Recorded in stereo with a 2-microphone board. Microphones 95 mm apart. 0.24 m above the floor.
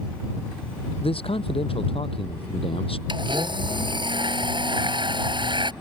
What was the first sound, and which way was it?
A man speaking, 80° left.